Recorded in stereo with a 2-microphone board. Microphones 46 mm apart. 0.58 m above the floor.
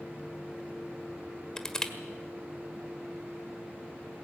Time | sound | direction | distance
1.6 | crushing | 15° left (ahead or behind) | 1.6 m